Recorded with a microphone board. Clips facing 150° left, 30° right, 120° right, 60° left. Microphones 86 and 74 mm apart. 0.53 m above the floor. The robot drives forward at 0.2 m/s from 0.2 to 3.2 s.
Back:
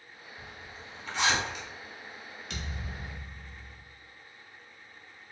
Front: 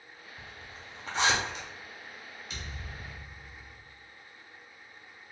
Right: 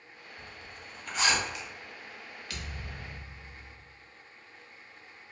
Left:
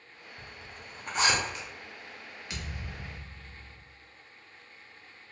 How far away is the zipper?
About 1.2 m.